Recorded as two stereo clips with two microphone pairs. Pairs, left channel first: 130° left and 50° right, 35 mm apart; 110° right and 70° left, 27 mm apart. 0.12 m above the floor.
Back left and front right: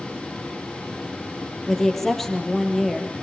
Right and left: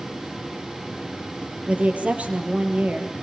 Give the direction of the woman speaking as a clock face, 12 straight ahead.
10 o'clock.